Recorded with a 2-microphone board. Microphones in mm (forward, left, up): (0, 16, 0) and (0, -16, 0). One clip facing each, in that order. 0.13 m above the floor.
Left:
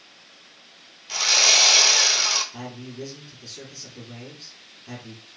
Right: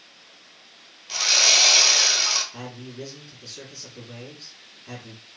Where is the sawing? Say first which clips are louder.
Even; 5° left (ahead or behind), 1.0 m.